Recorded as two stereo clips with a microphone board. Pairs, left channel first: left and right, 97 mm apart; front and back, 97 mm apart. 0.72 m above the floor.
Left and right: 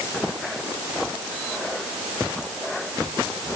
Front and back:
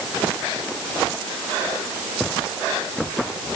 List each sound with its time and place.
Only background noise.